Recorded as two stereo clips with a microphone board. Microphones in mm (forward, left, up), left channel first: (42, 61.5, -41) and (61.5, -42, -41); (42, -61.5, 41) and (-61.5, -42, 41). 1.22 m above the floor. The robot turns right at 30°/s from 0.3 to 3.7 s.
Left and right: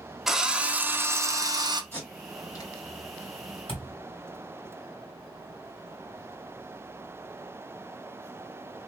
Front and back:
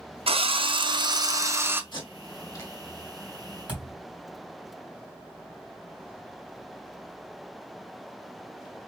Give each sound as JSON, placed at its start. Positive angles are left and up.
{"t": 0.3, "sound": "a drill", "azimuth_deg": -165, "distance_m": 0.5}
{"t": 1.9, "sound": "tape being pulled", "azimuth_deg": 30, "distance_m": 2.0}
{"t": 3.7, "sound": "a thud", "azimuth_deg": 95, "distance_m": 2.0}